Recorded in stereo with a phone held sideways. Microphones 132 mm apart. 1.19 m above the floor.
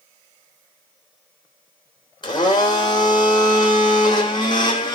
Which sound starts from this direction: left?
A blender, at 2.2 s.